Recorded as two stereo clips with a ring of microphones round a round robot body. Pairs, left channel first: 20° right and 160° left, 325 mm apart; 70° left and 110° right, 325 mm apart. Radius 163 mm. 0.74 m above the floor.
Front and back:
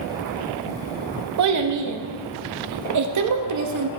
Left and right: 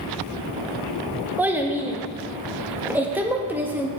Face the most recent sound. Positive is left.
turn(degrees=165)